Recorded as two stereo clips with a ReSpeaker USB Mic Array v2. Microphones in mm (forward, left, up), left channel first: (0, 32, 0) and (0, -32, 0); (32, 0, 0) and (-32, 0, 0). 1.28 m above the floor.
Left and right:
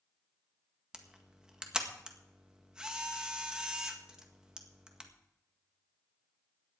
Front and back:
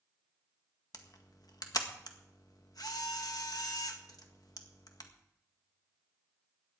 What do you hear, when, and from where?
0.9 s a camera shutter: 10° right, 1.7 m